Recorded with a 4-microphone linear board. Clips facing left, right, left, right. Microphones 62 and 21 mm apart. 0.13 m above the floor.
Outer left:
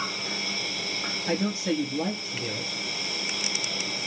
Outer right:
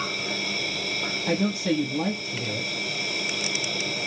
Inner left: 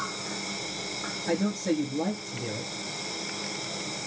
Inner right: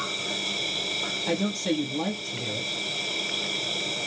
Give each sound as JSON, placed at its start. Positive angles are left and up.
{"t": 0.0, "sound": "an insect", "side_deg": -65, "distance_m": 5.0}
{"t": 1.3, "sound": "a man speaking", "side_deg": -65, "distance_m": 3.0}